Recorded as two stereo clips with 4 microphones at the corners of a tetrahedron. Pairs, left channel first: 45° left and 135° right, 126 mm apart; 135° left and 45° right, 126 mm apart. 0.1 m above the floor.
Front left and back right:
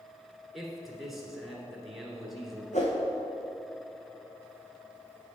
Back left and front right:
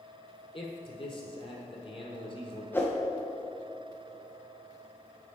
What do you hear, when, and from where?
0.5 s a man speaking: 135° left, 1.7 m
2.7 s a whoosh: 60° left, 1.7 m